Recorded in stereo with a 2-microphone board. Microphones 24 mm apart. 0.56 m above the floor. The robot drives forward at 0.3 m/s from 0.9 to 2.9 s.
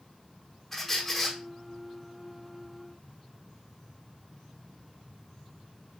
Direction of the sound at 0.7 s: 10° left (ahead or behind).